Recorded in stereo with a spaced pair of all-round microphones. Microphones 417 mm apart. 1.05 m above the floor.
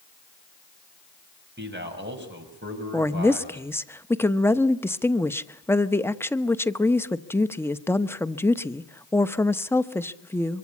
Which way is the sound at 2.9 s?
5° left (ahead or behind).